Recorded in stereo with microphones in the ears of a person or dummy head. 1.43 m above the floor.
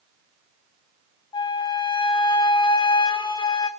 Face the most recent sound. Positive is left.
turn(degrees=25)  # may be behind; listen again after turning